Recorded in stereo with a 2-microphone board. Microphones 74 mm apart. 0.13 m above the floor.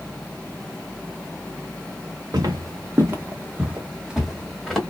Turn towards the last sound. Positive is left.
turn(degrees=0)  # may be behind; listen again after turning